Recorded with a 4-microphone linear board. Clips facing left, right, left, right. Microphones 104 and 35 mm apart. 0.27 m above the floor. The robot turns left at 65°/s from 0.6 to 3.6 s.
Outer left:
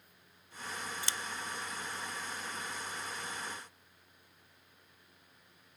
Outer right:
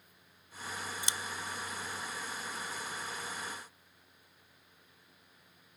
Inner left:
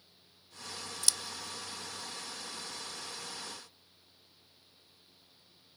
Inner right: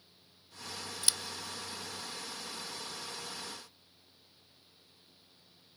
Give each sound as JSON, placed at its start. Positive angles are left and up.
{"t": 1.0, "sound": "scissors", "side_deg": -20}